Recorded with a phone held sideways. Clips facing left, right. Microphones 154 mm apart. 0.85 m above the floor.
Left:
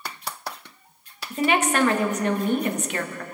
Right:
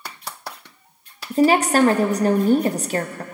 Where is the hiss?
No hiss in this recording.